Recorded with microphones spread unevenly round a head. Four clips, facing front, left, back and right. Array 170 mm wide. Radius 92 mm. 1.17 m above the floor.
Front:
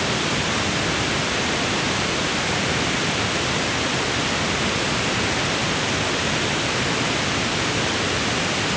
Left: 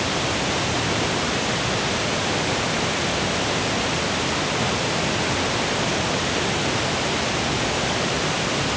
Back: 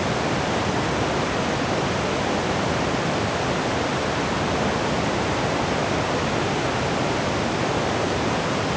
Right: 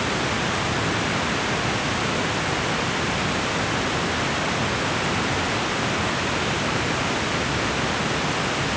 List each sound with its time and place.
Only background noise.